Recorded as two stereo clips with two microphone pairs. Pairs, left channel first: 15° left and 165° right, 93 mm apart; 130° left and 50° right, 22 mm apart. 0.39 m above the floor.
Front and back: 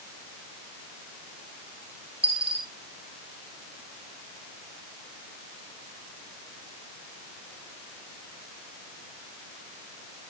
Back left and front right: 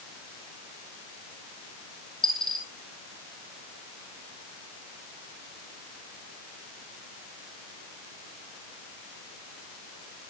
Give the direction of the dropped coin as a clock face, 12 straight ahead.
6 o'clock.